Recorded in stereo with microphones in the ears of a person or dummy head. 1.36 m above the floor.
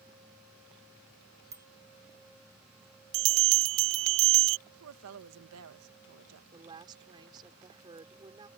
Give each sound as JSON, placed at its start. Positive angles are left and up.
{"t": 1.5, "sound": "a bicycle bell", "side_deg": -20}
{"t": 3.1, "sound": "a bell", "side_deg": -70}
{"t": 4.7, "sound": "a woman speaking", "side_deg": -90}
{"t": 6.5, "sound": "a woman speaking", "side_deg": -25}